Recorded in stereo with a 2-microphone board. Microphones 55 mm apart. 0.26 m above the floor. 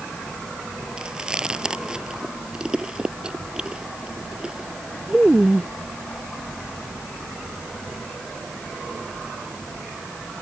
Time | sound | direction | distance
1.0 | chewing | 15° right (ahead or behind) | ?